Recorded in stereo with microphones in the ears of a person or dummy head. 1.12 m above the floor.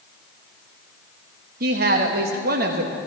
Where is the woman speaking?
50° right (ahead or behind), 1.5 m.